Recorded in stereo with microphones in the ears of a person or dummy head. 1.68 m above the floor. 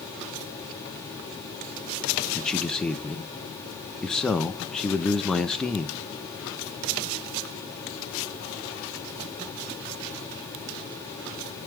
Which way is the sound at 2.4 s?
5° left (ahead or behind).